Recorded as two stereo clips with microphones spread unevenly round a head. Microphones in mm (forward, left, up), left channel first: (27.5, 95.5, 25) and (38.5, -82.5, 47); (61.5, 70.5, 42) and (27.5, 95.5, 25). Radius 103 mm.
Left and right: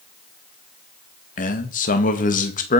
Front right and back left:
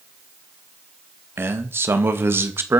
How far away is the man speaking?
About 2 m.